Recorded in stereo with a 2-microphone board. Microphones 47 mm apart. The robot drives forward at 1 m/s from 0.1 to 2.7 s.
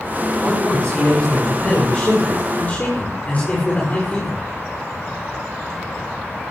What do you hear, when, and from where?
0.4 s a man speaking: 20° left (ahead or behind), 7.5 m; by 4.4 s 30° left (ahead or behind), 5.5 m